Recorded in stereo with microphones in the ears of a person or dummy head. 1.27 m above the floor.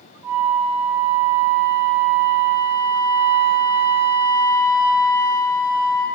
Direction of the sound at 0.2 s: 20° right (ahead or behind).